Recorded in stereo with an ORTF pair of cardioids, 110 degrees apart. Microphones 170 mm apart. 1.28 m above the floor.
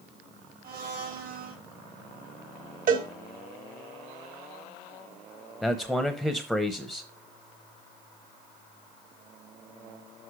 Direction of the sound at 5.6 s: Straight ahead.